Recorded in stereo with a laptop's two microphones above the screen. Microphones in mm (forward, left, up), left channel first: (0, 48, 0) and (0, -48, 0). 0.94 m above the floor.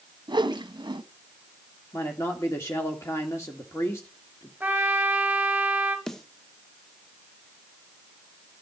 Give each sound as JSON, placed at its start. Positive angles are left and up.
{"t": 0.3, "sound": "a whoosh", "side_deg": -50, "distance_m": 0.9}
{"t": 1.9, "sound": "a man speaking", "side_deg": 30, "distance_m": 1.9}
{"t": 4.6, "sound": "a trumpet", "side_deg": -15, "distance_m": 2.5}
{"t": 6.1, "sound": "a snare drum", "side_deg": 5, "distance_m": 1.0}